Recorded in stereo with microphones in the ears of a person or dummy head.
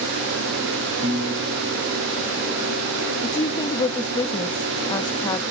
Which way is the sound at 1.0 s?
45° right (ahead or behind).